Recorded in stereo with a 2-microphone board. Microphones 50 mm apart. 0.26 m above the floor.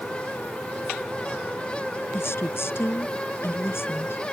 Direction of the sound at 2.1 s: 60° left (ahead or behind).